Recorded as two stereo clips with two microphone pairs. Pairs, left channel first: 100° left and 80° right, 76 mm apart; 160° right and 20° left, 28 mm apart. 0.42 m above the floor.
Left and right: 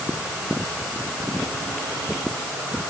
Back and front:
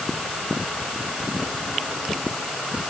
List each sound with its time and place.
Only background noise.